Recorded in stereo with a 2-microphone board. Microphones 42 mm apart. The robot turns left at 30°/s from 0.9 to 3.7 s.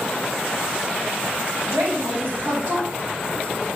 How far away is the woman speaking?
About 1.6 m.